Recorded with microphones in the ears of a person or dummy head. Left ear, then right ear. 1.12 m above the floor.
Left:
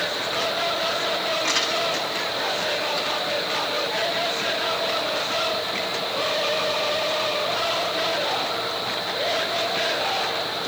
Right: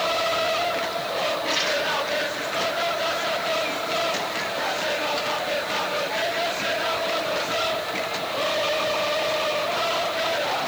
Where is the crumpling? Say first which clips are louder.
Left 2 dB; 45° left (ahead or behind), 8 m.